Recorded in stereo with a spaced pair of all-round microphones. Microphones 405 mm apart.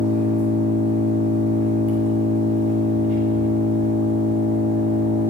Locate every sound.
0.0 s an engine running: 65° right (ahead or behind), 7.5 m